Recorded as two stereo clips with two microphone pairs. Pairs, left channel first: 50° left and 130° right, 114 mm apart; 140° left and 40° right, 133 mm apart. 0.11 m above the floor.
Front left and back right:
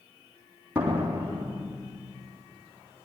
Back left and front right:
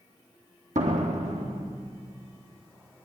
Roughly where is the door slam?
Ahead right.